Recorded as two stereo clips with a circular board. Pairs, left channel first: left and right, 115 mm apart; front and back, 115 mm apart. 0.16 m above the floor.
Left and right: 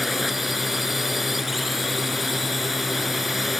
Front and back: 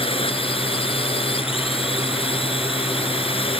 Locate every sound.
0.0 s a drone: straight ahead